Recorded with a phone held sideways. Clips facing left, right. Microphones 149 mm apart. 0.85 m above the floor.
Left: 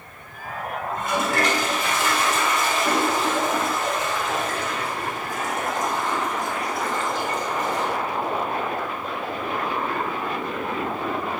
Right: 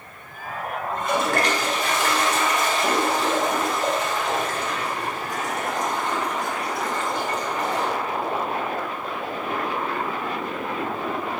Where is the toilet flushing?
55° right (ahead or behind), 2.5 m.